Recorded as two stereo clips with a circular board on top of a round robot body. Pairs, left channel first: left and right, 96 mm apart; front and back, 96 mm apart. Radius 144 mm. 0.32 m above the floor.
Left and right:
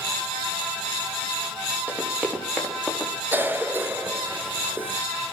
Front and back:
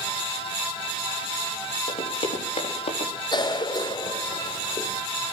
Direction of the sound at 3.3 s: 25° right.